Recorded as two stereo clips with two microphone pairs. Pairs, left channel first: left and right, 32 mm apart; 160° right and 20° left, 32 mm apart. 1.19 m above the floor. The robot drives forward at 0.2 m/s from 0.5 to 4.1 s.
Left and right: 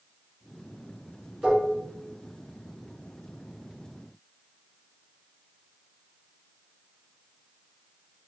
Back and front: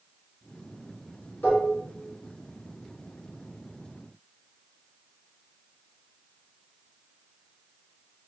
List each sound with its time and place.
1.4 s dishes clattering: 165° right, 1.5 m